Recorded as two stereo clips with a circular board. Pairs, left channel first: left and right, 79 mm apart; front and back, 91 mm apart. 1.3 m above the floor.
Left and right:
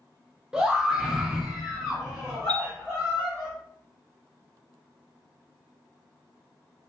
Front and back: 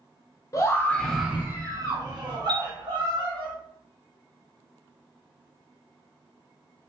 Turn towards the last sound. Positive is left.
turn(degrees=165)